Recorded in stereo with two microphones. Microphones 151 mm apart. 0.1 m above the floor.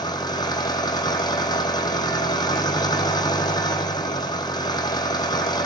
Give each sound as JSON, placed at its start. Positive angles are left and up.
{"t": 0.0, "sound": "an engine running", "side_deg": 25, "distance_m": 1.1}